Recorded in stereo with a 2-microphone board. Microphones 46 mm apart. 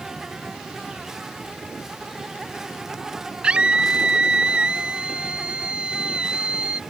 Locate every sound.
0.0 s an insect: 10° right (ahead or behind)
3.4 s a scream: 20° right (ahead or behind)